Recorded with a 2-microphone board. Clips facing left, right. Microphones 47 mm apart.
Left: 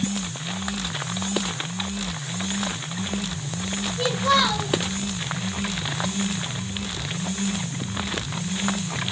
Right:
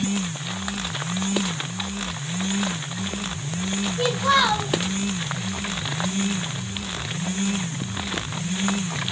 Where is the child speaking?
35° right (ahead or behind), 1.5 m.